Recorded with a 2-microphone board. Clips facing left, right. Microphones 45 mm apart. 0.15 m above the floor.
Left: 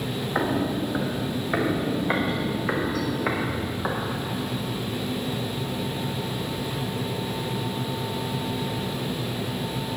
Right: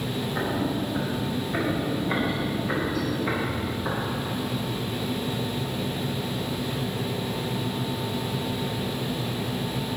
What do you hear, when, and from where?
0.3 s footsteps: 55° left (ahead or behind), 2 m; by 4.0 s 60° left (ahead or behind), 4.5 m